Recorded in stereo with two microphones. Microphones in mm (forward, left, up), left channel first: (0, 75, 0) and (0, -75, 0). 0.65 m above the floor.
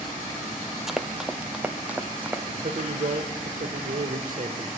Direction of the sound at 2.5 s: 65° right (ahead or behind).